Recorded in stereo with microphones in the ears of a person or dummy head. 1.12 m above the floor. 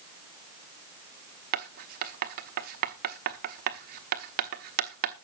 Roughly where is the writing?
Right.